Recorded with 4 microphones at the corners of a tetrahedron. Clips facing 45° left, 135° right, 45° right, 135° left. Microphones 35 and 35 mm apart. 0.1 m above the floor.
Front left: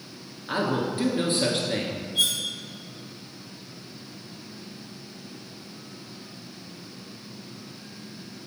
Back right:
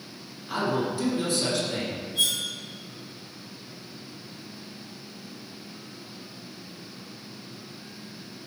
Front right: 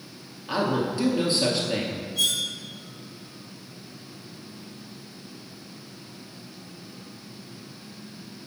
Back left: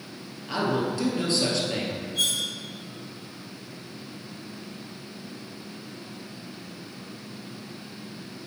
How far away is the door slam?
No door slam in this recording.